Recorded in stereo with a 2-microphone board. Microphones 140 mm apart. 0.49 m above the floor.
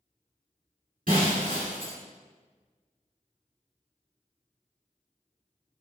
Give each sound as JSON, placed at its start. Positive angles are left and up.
{"t": 1.1, "sound": "breaking glass", "side_deg": -85, "distance_m": 2.0}